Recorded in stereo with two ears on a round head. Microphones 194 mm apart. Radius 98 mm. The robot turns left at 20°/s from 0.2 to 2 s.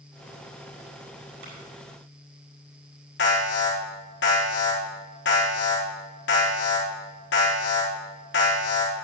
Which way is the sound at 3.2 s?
50° left (ahead or behind).